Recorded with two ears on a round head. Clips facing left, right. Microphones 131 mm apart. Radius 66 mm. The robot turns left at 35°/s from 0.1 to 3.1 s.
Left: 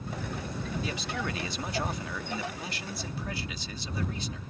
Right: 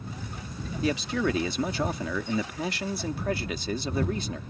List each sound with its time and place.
0.8 s a man speaking: 55° right; by 4.4 s 135° right